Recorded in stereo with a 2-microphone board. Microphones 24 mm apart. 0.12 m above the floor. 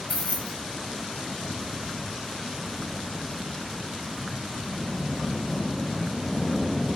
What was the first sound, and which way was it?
Keys jangling, 50° left (ahead or behind).